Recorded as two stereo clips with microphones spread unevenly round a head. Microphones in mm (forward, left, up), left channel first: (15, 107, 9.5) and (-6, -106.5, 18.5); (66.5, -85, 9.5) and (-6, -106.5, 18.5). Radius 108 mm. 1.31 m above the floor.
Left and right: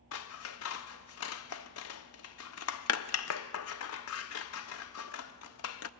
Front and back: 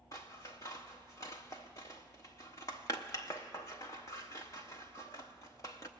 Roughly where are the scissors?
Left.